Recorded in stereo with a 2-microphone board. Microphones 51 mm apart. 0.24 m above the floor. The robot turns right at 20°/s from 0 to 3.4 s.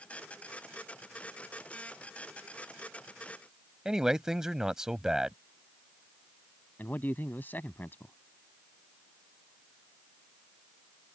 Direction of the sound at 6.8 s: 45° left (ahead or behind).